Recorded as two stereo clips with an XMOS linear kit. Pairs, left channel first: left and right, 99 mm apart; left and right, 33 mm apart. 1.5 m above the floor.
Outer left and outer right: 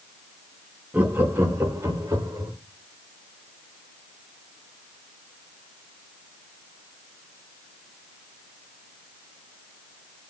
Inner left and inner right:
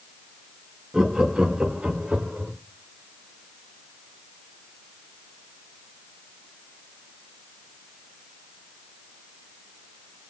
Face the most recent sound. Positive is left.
turn(degrees=-35)  # may be behind; listen again after turning